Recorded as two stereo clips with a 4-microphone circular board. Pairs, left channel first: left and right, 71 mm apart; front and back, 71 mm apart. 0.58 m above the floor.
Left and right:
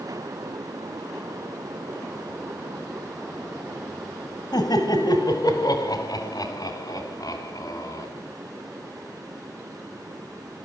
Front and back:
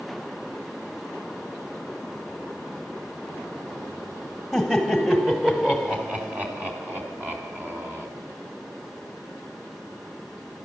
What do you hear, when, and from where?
4.5 s laughter: 95° left, 3 m; by 8.1 s 120° left, 4.5 m